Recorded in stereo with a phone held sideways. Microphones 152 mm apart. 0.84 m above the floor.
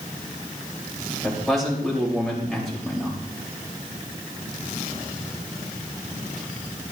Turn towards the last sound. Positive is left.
turn(degrees=0)  # may be behind; listen again after turning